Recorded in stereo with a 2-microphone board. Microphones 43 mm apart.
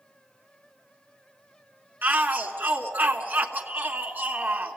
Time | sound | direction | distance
2.0 | a shout | 40° right (ahead or behind) | 1.5 m